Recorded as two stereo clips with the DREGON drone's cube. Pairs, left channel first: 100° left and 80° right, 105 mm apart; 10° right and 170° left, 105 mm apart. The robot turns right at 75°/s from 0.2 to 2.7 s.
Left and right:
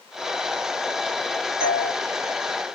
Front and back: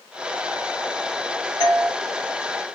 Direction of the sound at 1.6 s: 160° right.